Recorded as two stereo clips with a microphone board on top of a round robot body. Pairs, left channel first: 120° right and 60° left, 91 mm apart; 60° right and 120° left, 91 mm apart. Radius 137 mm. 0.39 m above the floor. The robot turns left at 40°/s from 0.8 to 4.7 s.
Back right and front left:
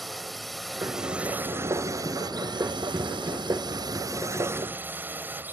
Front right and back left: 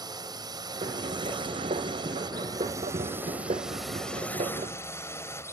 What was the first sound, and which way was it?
A drone, 150° left.